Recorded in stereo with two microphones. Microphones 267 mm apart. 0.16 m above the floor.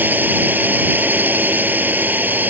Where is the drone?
5° right (ahead or behind).